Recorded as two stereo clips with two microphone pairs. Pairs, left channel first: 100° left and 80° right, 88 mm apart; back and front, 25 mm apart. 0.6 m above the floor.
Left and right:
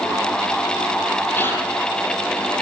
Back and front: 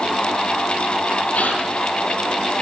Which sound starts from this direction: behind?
A gasp, at 1.3 s.